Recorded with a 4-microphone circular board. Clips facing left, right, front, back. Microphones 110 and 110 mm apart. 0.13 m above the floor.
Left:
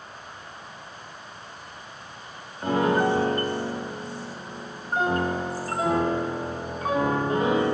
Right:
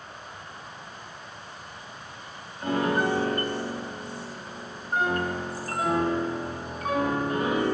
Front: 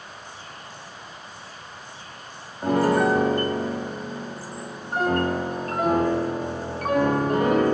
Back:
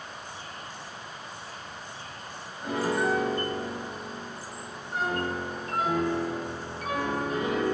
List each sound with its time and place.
2.6 s a piano: 30° left, 0.5 m